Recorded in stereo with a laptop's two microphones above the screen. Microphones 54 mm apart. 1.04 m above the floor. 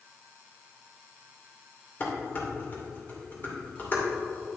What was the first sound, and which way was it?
Dishes clattering, 40° left (ahead or behind).